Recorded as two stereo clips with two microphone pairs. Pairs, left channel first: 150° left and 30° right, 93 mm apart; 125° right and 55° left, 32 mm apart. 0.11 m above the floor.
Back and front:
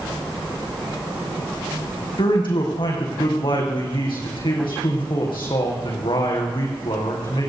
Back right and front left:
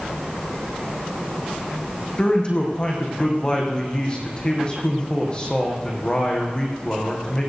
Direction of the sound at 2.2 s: 175° left.